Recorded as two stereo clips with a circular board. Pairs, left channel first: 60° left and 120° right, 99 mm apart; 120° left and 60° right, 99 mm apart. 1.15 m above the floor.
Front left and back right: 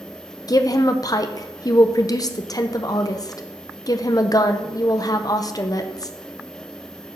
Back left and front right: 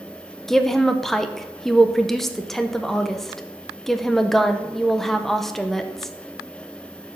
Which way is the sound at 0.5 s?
35° left.